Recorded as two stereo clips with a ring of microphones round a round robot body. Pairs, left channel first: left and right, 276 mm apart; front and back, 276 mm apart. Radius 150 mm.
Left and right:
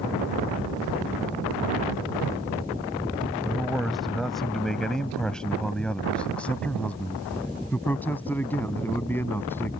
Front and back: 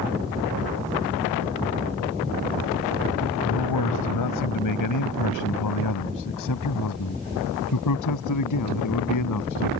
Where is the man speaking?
Straight ahead; by 9.7 s 10° left.